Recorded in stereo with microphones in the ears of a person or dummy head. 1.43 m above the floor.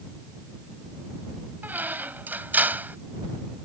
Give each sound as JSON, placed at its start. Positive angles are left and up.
{"t": 1.6, "sound": "a squeak", "side_deg": -10}